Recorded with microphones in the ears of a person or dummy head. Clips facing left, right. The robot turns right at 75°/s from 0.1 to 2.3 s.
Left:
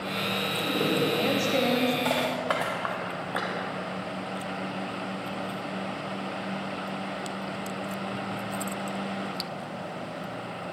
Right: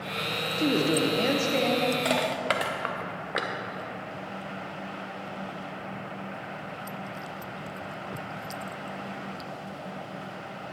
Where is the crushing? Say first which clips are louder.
Even; 30° right (ahead or behind), 0.6 m; by 3.5 s 25° right (ahead or behind), 0.6 m.